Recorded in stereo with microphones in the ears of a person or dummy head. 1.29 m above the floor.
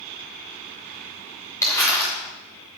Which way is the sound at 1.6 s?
15° left (ahead or behind).